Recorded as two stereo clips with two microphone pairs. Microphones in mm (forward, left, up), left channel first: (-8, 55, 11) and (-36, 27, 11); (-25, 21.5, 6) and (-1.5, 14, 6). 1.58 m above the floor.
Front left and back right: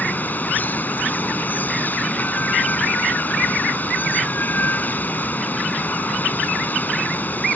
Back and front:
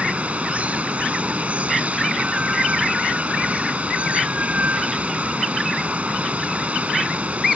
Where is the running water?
Straight ahead.